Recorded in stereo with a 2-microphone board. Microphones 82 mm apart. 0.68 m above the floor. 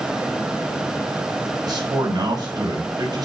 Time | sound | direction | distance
1.6 | a man speaking | 50° right (ahead or behind) | 5 m